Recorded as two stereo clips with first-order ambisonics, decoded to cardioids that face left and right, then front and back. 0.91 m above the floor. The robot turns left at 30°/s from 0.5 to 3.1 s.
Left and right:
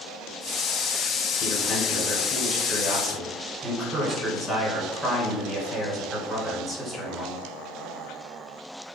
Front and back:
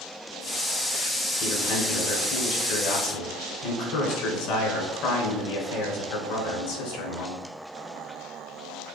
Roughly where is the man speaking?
Ahead left.